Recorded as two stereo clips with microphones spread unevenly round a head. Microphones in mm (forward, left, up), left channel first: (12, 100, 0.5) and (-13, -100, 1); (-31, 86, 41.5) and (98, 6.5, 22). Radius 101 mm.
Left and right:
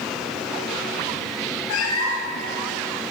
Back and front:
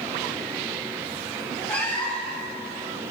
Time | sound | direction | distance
1.7 | a cat meowing | 70° left | 3 m